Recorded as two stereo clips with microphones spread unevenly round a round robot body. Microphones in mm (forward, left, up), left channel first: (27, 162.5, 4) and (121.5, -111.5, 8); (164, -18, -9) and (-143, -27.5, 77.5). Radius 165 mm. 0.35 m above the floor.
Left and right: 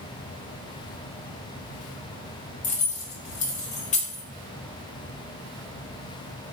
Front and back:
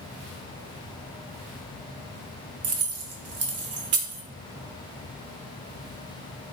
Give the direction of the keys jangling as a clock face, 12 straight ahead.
7 o'clock.